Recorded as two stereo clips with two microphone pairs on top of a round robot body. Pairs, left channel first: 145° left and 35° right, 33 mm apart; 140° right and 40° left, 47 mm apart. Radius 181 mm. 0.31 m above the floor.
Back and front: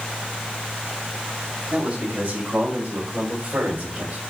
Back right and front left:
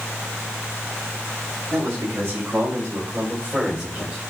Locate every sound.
1.7 s a man speaking: 15° left, 5 m; by 4.2 s 15° right, 2.5 m